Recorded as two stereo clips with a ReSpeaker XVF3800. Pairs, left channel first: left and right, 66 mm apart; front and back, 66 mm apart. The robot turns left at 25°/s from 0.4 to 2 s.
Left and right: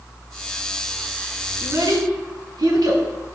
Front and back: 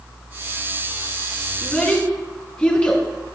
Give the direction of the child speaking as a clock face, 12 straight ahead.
2 o'clock.